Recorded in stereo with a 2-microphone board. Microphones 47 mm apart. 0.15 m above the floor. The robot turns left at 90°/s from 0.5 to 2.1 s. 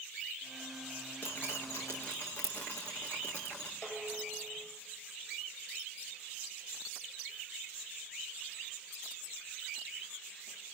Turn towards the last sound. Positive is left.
turn(degrees=50)  # may be behind; listen again after turning